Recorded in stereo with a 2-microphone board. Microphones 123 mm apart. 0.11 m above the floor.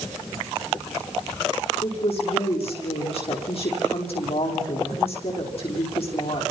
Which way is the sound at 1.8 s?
55° left (ahead or behind).